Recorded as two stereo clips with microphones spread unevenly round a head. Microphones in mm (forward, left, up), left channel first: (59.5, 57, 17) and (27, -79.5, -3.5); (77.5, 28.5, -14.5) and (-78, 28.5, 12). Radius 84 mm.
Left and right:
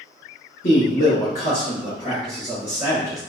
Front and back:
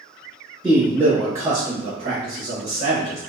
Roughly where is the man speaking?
Left.